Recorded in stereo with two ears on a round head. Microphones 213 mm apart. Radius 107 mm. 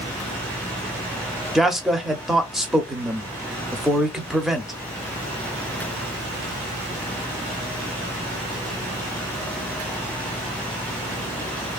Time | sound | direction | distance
1.6 | a man speaking | centre (ahead or behind) | 0.8 m